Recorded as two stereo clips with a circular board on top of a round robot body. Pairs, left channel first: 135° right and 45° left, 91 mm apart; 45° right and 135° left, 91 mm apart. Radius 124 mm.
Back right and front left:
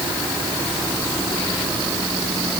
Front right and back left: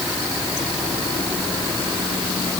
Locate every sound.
Only background noise.